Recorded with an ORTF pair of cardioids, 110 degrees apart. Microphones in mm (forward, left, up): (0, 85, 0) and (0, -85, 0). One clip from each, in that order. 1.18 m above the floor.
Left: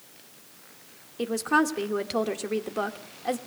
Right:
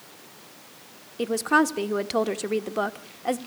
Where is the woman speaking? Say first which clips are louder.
Right 3 dB; 15° right, 1.2 m.